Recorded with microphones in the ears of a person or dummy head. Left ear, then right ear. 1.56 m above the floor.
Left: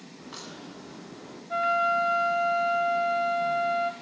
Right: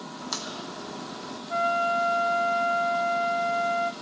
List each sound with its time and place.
0.2 s a crack: 75° right (ahead or behind), 2.5 m
1.5 s a flute: 5° left (ahead or behind), 0.9 m